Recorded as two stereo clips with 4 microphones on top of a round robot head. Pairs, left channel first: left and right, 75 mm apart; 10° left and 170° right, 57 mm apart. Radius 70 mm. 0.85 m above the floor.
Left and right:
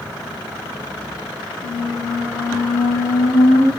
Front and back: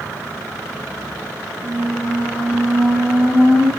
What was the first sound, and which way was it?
A squeak, 55° right.